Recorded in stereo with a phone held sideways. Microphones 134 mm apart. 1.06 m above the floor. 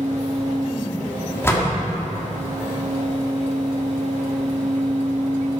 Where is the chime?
No chime in this recording.